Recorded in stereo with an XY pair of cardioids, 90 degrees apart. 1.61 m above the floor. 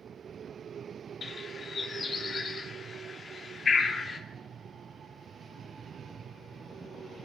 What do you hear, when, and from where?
1.2 s a bird: 50° left, 2.5 m